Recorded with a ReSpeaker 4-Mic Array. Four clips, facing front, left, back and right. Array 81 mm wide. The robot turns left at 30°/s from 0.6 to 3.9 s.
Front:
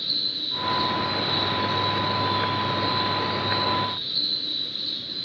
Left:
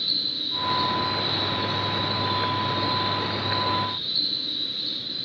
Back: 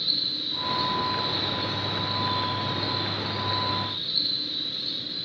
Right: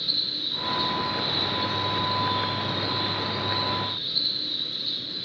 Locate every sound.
0.0 s an insect: 75° right, 1.7 m; by 5.3 s 175° right, 1.7 m